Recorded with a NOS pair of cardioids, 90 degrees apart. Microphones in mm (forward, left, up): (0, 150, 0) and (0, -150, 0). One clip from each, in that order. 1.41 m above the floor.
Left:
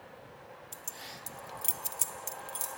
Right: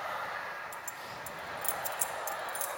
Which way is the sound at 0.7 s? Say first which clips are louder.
Right 4 dB; 35° left.